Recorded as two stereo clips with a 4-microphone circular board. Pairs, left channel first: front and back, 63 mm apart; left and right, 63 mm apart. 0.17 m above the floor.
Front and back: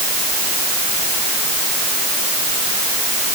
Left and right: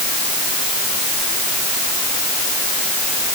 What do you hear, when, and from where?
Only background noise.